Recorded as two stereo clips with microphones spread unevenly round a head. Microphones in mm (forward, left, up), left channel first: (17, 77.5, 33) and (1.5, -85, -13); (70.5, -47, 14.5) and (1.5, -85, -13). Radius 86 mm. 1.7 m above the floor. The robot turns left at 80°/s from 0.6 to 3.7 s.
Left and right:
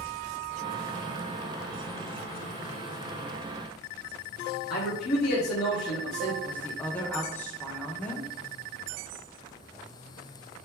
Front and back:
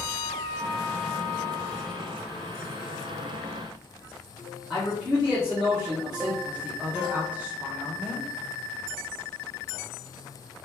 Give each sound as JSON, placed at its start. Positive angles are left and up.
{"t": 4.7, "sound": "a man speaking", "azimuth_deg": 115, "distance_m": 1.0}
{"t": 6.4, "sound": "a woman speaking", "azimuth_deg": 110, "distance_m": 0.6}